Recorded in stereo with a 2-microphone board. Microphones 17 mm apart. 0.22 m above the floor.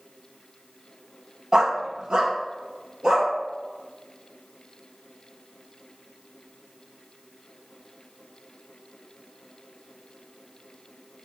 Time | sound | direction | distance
1.5 | a dog barking | 50° right (ahead or behind) | 0.5 m